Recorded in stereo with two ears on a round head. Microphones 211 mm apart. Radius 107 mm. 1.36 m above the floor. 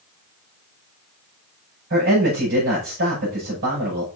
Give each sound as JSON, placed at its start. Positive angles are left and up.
{"t": 1.9, "sound": "a man speaking", "side_deg": -45, "distance_m": 6.5}